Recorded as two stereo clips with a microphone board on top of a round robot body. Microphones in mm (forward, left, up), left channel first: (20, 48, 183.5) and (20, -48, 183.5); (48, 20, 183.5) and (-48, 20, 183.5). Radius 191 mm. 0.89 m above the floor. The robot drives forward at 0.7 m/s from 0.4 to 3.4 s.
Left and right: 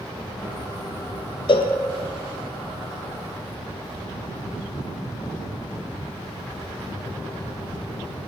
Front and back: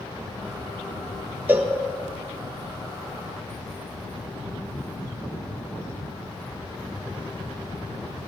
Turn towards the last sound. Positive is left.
turn(degrees=145)